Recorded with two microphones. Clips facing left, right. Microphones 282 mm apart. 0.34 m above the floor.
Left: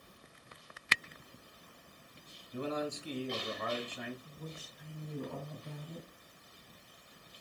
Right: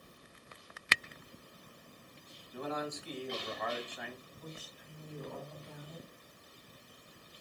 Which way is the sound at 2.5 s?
35° left (ahead or behind).